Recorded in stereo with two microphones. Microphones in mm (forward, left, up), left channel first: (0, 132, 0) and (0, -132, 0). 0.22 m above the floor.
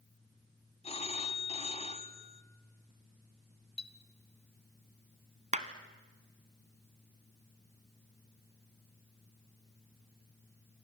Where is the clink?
25° left (ahead or behind), 1.2 m.